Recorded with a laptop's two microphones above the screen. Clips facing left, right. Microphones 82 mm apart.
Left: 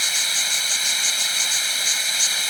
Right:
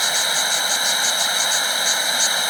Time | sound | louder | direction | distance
0.0 | running water | right 6 dB | 50° right (ahead or behind) | ?